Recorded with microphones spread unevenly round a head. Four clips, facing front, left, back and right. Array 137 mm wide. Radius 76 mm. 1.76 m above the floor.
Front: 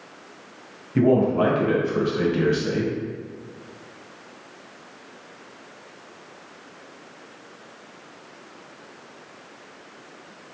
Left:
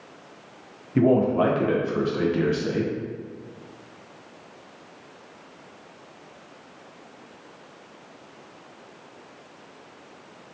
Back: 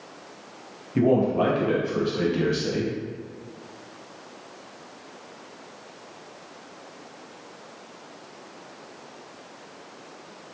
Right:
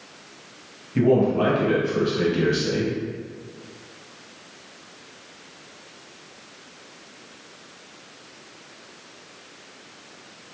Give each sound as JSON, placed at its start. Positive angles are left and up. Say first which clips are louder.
{"t": 0.9, "sound": "a man speaking", "louder": "even, front 2 dB", "azimuth_deg": 50, "distance_m": 0.6}